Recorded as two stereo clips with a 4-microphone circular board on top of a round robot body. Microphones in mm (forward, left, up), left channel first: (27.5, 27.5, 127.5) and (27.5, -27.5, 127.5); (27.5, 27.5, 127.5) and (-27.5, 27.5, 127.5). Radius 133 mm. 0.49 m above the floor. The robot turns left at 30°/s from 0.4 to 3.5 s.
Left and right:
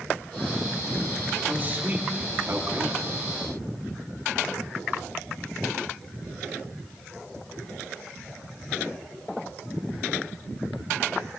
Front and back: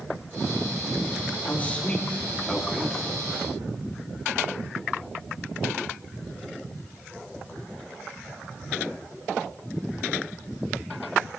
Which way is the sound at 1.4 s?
45° right.